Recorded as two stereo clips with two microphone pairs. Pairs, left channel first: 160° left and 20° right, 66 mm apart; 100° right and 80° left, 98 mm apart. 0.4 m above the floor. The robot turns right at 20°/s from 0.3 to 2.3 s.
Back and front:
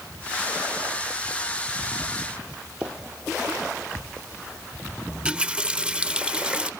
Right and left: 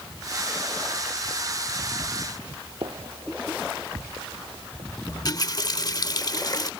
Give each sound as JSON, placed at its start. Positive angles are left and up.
{"t": 2.8, "sound": "a gunshot", "azimuth_deg": 45}
{"t": 5.1, "sound": "a running tap", "azimuth_deg": -85}